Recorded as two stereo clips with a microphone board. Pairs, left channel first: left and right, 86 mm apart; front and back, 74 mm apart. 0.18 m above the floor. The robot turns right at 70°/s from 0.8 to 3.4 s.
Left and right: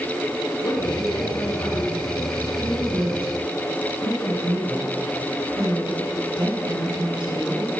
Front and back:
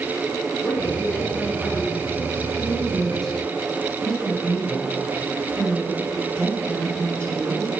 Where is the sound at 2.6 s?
130° right, 4 m; by 7.7 s 75° right, 4 m.